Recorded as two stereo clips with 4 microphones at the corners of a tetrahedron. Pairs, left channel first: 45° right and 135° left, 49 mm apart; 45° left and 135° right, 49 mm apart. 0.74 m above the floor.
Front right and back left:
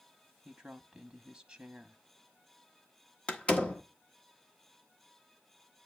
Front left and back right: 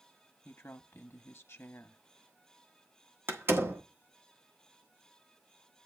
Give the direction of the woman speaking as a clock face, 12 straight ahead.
10 o'clock.